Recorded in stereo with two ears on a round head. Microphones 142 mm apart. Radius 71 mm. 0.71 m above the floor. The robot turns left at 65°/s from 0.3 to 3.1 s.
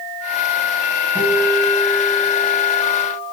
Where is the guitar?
20° right, 4.5 m; by 3.1 s 145° right, 4.5 m.